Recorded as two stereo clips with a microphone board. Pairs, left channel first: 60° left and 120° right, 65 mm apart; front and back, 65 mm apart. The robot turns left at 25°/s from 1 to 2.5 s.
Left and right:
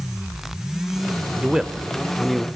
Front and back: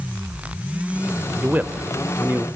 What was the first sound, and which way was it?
A man speaking, 175° left.